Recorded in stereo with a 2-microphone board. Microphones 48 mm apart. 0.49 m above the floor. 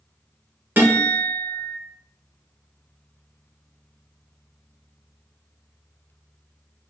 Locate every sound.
0.8 s a guitar: 50° right (ahead or behind), 1.5 m